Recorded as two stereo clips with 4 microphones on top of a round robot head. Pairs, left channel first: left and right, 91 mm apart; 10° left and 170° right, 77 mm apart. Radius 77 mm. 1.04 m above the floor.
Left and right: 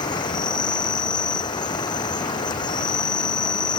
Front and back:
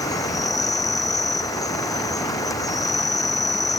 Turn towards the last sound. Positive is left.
turn(degrees=50)